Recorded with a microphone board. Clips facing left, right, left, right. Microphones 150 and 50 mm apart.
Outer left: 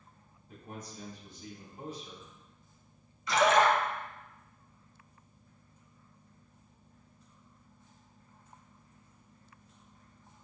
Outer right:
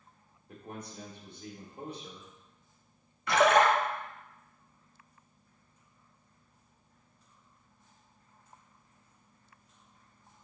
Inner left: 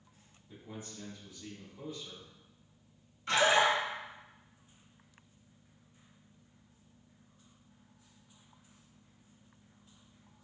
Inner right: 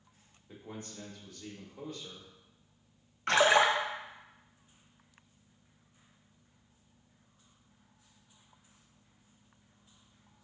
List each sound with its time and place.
0.5 s a man speaking: 65° right (ahead or behind), 1.3 m
3.3 s a splash: 60° right (ahead or behind), 0.6 m